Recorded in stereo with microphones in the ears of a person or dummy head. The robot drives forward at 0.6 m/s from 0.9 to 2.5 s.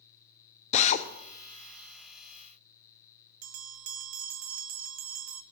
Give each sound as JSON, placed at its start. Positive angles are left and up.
{"t": 0.7, "sound": "a drill", "side_deg": 35, "distance_m": 0.6}
{"t": 3.4, "sound": "a bell", "side_deg": -75, "distance_m": 0.7}